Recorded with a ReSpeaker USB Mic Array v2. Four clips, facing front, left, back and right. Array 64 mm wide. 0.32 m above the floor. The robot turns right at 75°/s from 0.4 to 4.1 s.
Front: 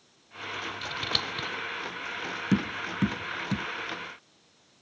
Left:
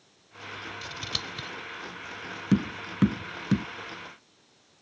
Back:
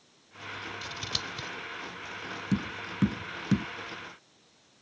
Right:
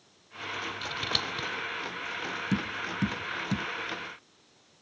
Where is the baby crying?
I don't hear a baby crying.